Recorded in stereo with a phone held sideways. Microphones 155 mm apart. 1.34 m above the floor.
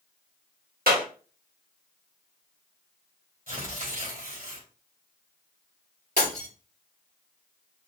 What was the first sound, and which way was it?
A clap, 80° right.